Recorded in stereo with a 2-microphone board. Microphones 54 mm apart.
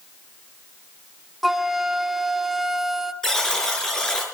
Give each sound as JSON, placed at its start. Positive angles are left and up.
{"t": 1.4, "sound": "a flute", "side_deg": -5, "distance_m": 1.2}
{"t": 3.2, "sound": "a buzzer", "side_deg": 10, "distance_m": 5.0}